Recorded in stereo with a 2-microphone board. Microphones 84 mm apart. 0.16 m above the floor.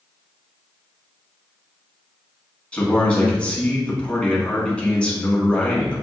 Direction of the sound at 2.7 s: 15° left (ahead or behind).